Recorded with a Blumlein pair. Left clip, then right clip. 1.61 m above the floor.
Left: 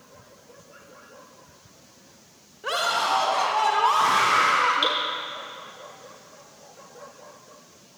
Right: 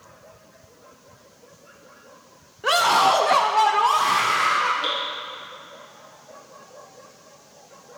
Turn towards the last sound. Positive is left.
turn(degrees=50)